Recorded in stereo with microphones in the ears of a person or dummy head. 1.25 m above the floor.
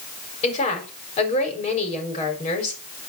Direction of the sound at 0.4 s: 35° left (ahead or behind).